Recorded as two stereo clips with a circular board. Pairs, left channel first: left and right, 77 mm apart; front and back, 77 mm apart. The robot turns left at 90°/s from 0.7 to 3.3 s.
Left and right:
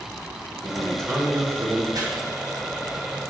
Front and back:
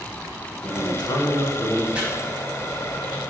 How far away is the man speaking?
About 0.6 m.